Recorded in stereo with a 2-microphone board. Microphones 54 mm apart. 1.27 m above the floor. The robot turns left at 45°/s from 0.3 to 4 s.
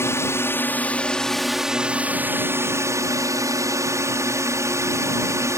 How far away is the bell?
No bell in this recording.